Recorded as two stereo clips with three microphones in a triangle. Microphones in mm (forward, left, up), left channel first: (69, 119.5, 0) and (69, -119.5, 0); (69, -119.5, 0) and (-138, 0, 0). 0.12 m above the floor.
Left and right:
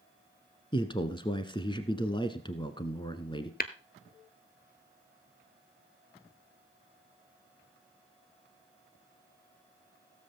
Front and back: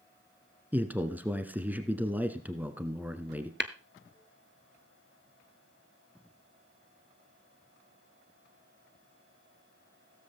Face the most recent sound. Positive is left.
turn(degrees=130)